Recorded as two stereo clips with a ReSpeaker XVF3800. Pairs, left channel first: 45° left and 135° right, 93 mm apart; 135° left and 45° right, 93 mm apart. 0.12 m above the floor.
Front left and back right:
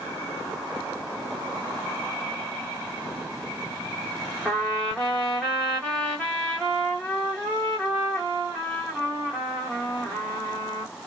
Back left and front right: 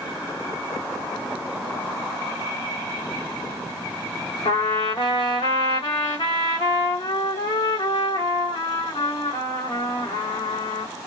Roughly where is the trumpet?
Behind left.